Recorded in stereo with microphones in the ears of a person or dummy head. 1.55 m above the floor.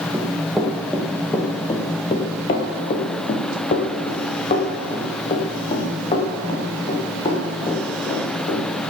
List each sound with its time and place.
0.1 s running footsteps: centre (ahead or behind), 2 m; by 8.9 s 35° left (ahead or behind), 5 m